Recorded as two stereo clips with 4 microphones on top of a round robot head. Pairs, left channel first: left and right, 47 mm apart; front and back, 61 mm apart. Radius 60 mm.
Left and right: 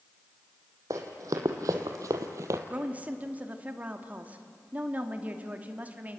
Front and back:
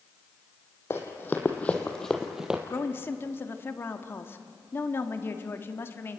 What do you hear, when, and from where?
0.9 s running footsteps: 60° right, 1.9 m; by 2.6 s 105° right, 1.2 m
2.7 s a woman speaking: 40° right, 1.4 m